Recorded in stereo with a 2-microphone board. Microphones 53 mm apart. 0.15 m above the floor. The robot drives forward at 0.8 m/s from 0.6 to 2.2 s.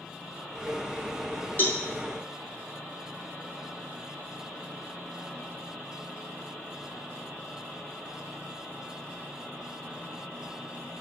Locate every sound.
1.6 s a cowbell: 40° left (ahead or behind), 0.9 m; by 1.8 s 35° left (ahead or behind), 0.9 m